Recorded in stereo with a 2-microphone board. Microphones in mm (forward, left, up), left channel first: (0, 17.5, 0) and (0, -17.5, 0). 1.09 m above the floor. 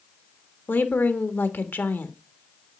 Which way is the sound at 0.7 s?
75° left (ahead or behind).